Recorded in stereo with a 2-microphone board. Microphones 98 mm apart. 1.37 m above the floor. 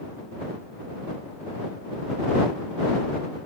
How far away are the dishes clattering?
I don't hear dishes clattering.